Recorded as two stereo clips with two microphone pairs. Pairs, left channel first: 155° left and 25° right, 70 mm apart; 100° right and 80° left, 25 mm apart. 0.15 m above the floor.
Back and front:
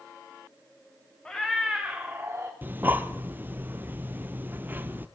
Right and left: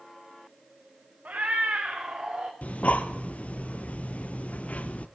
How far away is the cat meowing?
About 2.0 m.